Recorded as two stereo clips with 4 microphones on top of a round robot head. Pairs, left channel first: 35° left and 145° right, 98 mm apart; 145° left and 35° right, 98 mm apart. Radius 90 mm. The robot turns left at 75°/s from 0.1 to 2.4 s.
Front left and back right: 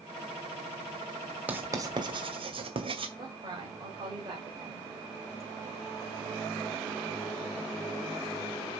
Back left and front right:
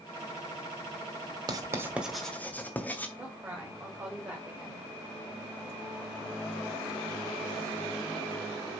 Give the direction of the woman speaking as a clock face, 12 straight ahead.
3 o'clock.